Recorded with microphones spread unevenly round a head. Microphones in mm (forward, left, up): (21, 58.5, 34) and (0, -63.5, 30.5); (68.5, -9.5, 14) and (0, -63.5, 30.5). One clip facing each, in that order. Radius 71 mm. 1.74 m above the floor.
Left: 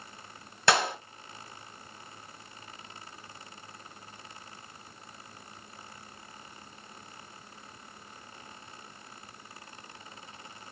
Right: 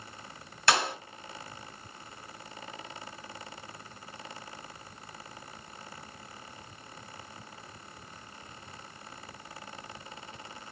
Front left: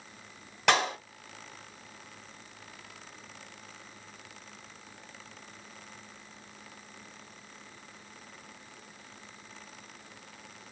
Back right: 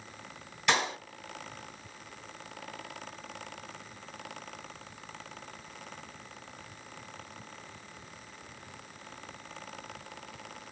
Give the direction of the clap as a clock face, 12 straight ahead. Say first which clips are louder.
Left 2 dB, front left 3 dB; 9 o'clock.